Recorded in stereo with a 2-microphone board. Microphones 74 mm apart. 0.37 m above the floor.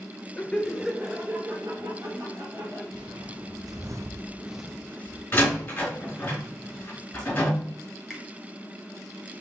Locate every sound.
0.4 s laughter: 20° left (ahead or behind), 0.9 m; by 2.8 s 40° right (ahead or behind), 2.5 m
2.9 s footsteps: 75° right (ahead or behind), 1.5 m; by 5.2 s 30° left (ahead or behind), 1.0 m
5.3 s a door slam: 25° left (ahead or behind), 3.5 m
8.1 s a finger snap: 5° right (ahead or behind), 2.0 m